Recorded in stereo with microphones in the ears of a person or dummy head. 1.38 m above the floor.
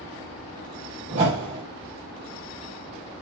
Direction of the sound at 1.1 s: 30° right (ahead or behind).